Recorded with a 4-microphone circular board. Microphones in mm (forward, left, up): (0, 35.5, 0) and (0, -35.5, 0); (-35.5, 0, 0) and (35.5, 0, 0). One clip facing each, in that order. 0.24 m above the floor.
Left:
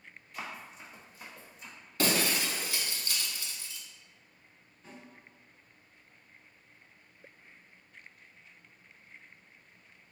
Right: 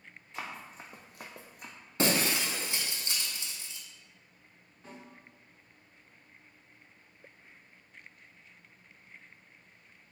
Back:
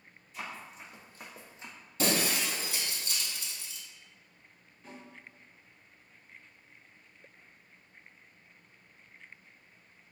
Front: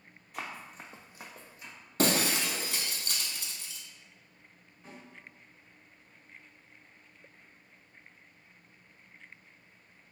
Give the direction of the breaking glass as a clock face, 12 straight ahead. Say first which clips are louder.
Right 1 dB, front 2 dB; 1 o'clock.